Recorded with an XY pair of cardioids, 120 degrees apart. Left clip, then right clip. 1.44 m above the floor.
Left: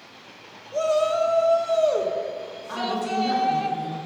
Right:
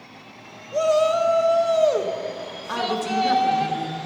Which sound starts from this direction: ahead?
A shout, at 0.7 s.